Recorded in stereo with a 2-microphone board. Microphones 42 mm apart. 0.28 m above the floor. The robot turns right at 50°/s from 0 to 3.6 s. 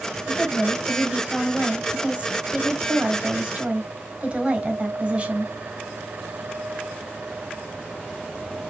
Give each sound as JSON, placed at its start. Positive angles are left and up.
{"t": 0.3, "sound": "a woman speaking", "azimuth_deg": 140, "distance_m": 1.3}